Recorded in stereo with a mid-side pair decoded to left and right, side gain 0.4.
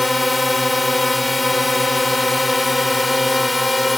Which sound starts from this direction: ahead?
A drone, at 0.0 s.